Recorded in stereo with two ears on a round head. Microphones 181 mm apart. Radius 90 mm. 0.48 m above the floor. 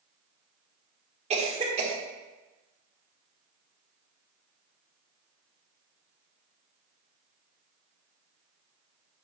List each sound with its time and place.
1.3 s a cough: 30° right (ahead or behind), 1.6 m